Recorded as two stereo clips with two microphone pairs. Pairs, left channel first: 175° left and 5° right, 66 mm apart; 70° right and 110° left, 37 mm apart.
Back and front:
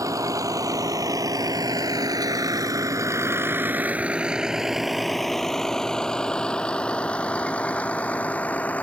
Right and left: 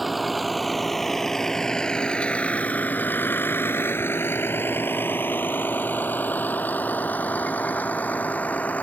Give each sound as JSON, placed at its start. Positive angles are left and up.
{"t": 0.0, "sound": "a vehicle", "azimuth_deg": 20}